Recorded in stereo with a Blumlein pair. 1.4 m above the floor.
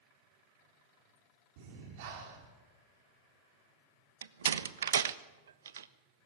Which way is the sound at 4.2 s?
65° right.